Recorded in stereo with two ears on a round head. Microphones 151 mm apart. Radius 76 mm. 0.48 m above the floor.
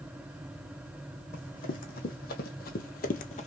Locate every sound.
1.3 s running footsteps: 55° left (ahead or behind), 1.5 m; by 3.5 s 40° left (ahead or behind), 0.6 m